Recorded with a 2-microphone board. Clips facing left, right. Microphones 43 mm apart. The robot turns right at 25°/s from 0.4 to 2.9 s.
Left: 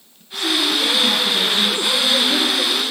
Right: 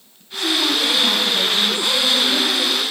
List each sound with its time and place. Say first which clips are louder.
0.3 s a woman speaking: even; straight ahead, 3 m; by 2.8 s 60° left, 3 m